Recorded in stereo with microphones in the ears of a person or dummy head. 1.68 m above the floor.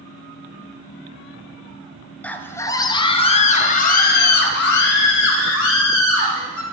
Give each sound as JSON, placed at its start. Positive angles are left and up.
{"t": 2.2, "sound": "a scream", "side_deg": 10, "distance_m": 1.3}